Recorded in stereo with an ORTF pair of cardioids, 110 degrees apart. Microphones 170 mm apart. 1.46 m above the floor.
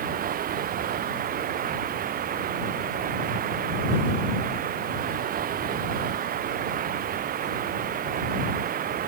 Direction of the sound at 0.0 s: 55° right.